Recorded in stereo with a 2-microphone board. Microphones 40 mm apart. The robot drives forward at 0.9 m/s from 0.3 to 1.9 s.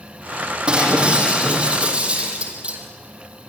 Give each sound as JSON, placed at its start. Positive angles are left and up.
{"t": 0.7, "sound": "breaking glass", "side_deg": -25, "distance_m": 6.5}